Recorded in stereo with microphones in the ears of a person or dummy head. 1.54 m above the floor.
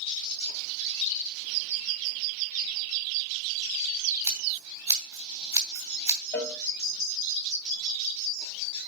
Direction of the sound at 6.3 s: 10° left (ahead or behind).